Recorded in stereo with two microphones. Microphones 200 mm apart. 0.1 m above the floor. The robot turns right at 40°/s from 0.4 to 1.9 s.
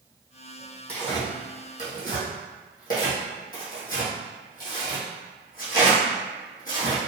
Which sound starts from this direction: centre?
Tearing paper, at 0.9 s.